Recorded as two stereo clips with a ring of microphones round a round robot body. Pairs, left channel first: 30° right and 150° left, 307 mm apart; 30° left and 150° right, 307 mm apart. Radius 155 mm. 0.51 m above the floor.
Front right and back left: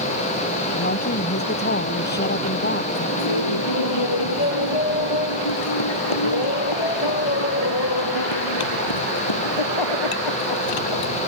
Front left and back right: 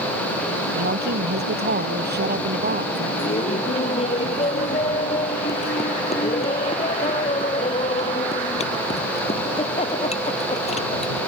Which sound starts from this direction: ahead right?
Laughter, at 3.2 s.